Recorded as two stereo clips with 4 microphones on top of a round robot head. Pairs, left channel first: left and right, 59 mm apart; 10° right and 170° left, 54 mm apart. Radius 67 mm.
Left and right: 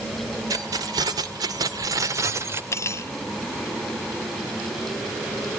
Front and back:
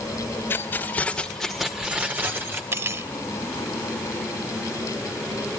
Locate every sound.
0.5 s keys jangling: 65° right, 3 m; by 2.6 s 140° right, 3 m
2.7 s cutlery clinking: 130° left, 1.3 m